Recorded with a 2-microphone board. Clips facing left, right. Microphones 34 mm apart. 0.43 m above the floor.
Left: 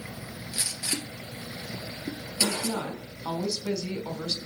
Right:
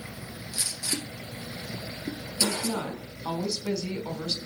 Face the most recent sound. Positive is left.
turn(degrees=-15)  # may be behind; listen again after turning